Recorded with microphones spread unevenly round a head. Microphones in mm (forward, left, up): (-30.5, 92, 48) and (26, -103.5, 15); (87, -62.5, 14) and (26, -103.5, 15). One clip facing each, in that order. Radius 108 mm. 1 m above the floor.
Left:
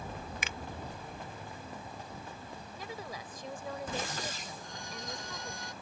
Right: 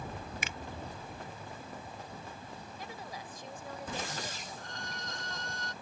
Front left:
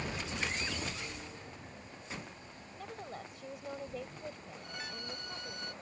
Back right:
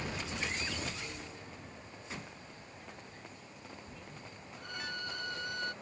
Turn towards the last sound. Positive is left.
turn(degrees=-175)